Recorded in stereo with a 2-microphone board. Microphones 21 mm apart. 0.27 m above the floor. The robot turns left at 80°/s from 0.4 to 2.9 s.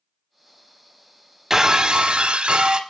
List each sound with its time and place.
1.5 s breaking glass: 25° right, 0.5 m; by 2.8 s 130° right, 0.5 m